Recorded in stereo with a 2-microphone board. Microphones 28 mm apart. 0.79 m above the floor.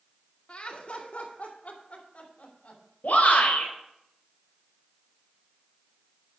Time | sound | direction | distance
0.5 | laughter | 50° left (ahead or behind) | 2.5 m
3.0 | a shout | 75° left (ahead or behind) | 3.5 m